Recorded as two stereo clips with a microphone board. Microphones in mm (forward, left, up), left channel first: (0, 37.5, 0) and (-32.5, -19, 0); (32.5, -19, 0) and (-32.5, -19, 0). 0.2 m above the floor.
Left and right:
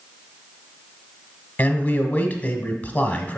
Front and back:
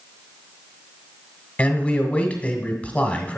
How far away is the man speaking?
About 1.2 m.